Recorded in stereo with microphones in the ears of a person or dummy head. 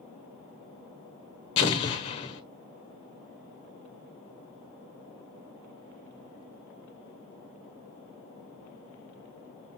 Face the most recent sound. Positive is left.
turn(degrees=30)  # may be behind; listen again after turning